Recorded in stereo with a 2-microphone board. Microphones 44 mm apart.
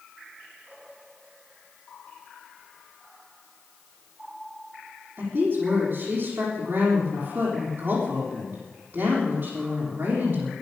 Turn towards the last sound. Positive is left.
turn(degrees=-45)  # may be behind; listen again after turning